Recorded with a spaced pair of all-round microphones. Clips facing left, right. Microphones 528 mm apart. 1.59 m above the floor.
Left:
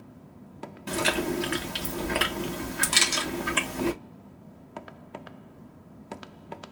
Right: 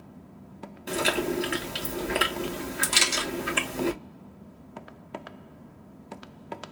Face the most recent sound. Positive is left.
turn(degrees=0)  # may be behind; listen again after turning